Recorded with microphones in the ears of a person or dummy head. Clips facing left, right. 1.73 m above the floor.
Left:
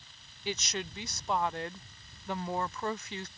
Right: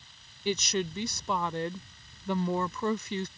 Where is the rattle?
No rattle in this recording.